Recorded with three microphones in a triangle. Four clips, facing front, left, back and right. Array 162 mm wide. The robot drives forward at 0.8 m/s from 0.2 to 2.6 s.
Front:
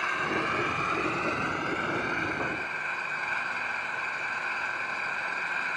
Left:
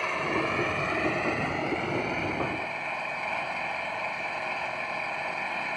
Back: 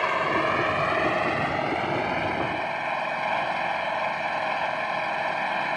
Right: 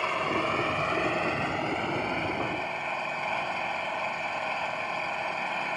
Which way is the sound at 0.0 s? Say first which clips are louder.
Right 1 dB, back 6 dB; 175° right.